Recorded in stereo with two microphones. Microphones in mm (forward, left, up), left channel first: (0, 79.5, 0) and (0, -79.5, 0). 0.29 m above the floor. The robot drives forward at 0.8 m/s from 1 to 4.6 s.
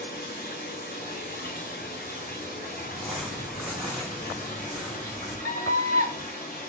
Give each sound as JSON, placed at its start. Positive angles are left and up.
{"t": 0.0, "sound": "running water", "side_deg": 85, "distance_m": 6.5}
{"t": 2.9, "sound": "crumpling", "side_deg": 0, "distance_m": 2.5}
{"t": 5.5, "sound": "a scream", "side_deg": 65, "distance_m": 3.5}